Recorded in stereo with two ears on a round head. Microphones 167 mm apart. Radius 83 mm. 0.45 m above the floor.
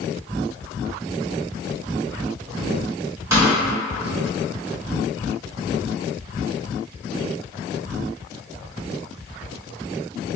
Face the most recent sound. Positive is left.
turn(degrees=-15)  # may be behind; listen again after turning